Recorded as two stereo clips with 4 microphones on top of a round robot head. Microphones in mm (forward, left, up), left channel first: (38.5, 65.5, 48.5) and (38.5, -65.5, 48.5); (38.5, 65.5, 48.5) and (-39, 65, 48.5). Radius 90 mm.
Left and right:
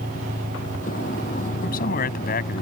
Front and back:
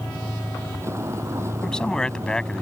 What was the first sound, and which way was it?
A vehicle, 125° left.